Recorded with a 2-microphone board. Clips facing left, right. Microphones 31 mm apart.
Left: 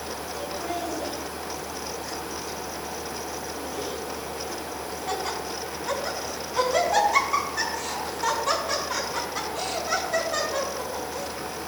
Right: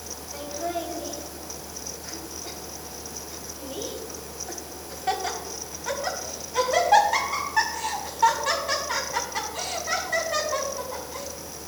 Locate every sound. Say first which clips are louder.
0.3 s laughter: right 2 dB; 30° right (ahead or behind), 4 m; by 11.3 s 80° right, 5.5 m